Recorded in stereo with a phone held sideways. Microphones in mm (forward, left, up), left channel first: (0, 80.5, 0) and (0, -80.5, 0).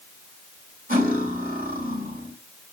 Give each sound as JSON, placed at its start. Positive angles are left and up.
{"t": 0.9, "sound": "cutlery clinking", "side_deg": -65, "distance_m": 1.7}